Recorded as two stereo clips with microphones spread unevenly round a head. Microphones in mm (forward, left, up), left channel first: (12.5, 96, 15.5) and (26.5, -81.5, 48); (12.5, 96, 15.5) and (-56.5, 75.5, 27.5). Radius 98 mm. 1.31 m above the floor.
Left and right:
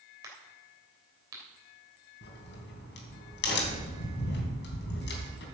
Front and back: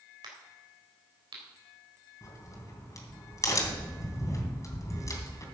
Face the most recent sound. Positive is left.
turn(degrees=60)